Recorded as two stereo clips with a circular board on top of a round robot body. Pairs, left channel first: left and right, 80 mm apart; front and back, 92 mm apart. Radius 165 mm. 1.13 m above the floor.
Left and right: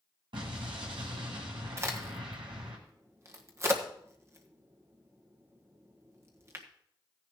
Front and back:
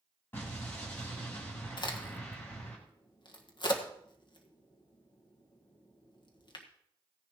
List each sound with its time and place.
0.3 s an explosion: 70° right, 1.7 m
1.8 s a crack: 35° right, 1.7 m